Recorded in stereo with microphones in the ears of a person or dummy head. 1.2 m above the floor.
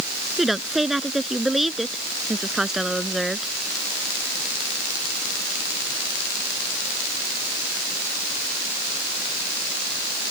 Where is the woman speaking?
Centre (ahead or behind).